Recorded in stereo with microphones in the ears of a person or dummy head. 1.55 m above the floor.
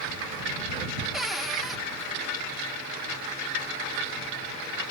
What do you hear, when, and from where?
1.1 s a cupboard door: 5° left (ahead or behind)